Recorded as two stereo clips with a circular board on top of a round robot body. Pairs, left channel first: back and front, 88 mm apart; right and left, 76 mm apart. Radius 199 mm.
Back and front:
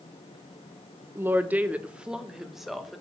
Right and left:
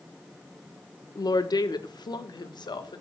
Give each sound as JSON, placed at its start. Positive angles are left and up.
{"t": 1.1, "sound": "a woman speaking", "azimuth_deg": -65, "distance_m": 1.5}